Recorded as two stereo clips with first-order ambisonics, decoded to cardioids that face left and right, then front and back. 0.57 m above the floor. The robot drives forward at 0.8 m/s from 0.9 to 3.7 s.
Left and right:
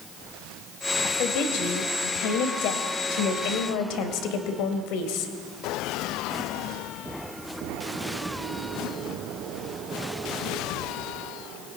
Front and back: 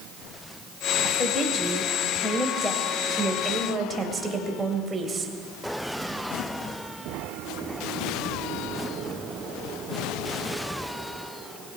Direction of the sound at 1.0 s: 60° left.